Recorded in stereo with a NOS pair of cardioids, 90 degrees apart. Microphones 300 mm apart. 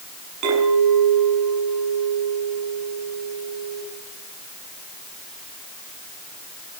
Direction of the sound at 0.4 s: 70° right.